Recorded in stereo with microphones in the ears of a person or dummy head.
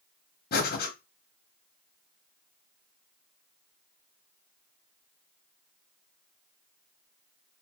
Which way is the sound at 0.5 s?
45° left (ahead or behind).